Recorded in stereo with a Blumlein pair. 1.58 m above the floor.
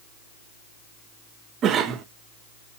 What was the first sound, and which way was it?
A cough, 30° right.